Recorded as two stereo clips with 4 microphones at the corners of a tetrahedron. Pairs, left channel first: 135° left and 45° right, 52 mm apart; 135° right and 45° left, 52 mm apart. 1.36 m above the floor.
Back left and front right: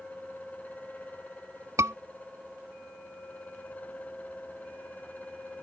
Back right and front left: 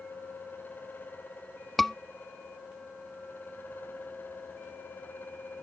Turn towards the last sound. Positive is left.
turn(degrees=-45)